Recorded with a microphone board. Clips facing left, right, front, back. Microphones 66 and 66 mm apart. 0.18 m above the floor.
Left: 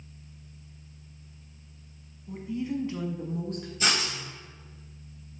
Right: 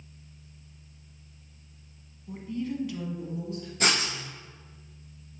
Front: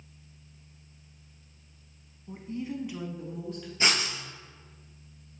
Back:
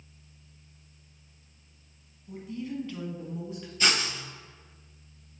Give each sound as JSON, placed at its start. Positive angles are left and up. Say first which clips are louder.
{"t": 2.3, "sound": "a woman speaking", "louder": "left 1 dB, front 1 dB", "azimuth_deg": -10, "distance_m": 1.3}
{"t": 3.8, "sound": "writing", "louder": "right 2 dB, even", "azimuth_deg": -60, "distance_m": 3.0}